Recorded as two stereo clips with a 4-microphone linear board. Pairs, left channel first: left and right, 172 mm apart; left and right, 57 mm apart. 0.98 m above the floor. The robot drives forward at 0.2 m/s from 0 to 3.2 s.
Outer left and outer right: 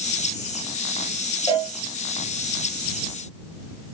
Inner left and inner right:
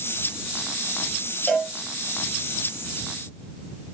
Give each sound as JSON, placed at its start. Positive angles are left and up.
{"t": 1.5, "sound": "a cowbell", "side_deg": 25, "distance_m": 0.7}